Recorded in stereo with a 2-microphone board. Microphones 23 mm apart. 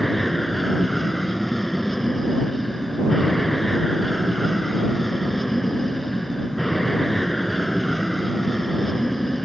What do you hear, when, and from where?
0.0 s an aircraft: 5° left (ahead or behind)